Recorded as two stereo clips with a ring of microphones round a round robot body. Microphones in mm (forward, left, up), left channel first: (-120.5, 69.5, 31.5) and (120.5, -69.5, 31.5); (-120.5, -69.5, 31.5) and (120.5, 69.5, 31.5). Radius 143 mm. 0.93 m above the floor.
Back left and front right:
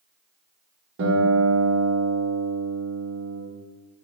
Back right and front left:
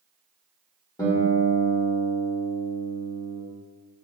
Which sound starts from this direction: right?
A guitar, at 1.0 s.